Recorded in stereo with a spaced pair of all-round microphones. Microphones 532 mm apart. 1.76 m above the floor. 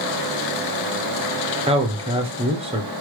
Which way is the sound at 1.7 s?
10° right (ahead or behind).